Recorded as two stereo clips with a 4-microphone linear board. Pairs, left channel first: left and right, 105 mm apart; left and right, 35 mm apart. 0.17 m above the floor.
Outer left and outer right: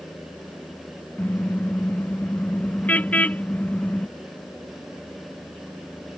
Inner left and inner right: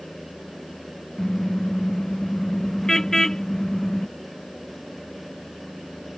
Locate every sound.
1.2 s a car horn: 15° left (ahead or behind); by 4.1 s 10° left (ahead or behind)